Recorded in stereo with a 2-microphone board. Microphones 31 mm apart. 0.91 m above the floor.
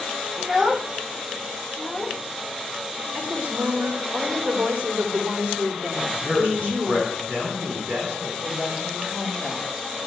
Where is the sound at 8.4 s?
45° right (ahead or behind), 5.5 m.